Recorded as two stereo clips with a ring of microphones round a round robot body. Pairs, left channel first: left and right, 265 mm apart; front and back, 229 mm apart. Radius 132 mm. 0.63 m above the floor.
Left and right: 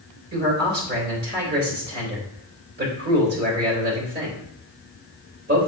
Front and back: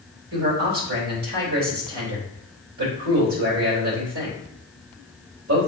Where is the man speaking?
145° right, 3.5 m.